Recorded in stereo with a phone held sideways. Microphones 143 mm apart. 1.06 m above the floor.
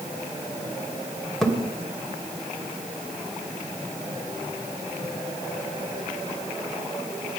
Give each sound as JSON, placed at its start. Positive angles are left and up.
{"t": 1.4, "sound": "a thud", "side_deg": 0, "distance_m": 2.0}